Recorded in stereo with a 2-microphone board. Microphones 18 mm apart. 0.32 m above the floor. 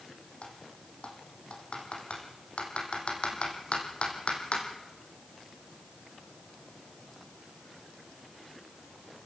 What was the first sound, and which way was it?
Typing on a keyboard, 70° left (ahead or behind).